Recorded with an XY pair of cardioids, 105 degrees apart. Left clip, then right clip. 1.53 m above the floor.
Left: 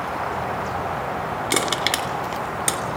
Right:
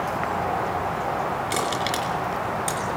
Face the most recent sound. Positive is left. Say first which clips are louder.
# left 3 dB
turn(degrees=55)